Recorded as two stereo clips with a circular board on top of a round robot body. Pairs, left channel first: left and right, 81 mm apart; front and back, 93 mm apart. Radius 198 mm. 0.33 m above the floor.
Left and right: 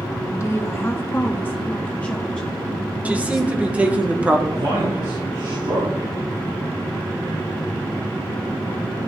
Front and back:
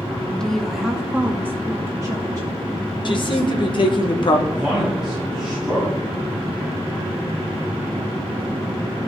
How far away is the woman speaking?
About 1.6 m.